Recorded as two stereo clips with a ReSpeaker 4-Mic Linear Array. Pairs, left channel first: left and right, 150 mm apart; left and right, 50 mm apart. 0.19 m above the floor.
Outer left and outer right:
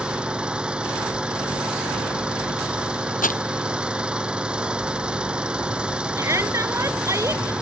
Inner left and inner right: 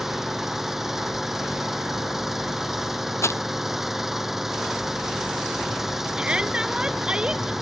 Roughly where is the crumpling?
Left.